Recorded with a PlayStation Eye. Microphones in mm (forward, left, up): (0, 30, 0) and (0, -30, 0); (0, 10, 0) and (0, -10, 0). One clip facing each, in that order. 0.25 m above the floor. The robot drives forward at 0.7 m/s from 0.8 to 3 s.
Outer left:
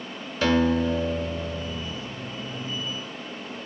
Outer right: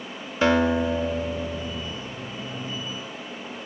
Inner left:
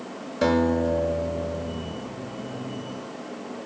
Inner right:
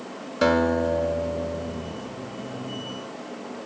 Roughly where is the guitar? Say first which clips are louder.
Outer right 1 dB, inner right 1 dB; right.